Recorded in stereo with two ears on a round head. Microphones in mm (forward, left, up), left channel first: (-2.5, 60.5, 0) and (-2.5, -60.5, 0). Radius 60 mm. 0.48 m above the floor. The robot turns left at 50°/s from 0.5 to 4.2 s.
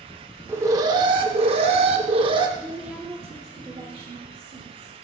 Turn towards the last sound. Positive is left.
turn(degrees=-80)